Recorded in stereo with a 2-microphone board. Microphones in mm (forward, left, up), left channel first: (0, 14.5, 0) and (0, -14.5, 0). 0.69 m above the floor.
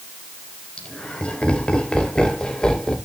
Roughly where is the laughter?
Left.